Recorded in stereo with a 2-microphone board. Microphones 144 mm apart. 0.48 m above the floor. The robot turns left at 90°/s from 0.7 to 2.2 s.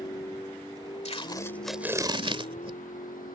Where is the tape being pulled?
45° left (ahead or behind); by 2.8 s 40° right (ahead or behind).